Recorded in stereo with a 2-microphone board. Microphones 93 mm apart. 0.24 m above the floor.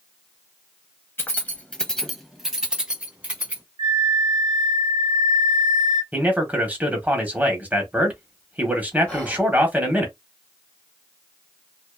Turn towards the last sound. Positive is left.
turn(degrees=15)  # may be behind; listen again after turning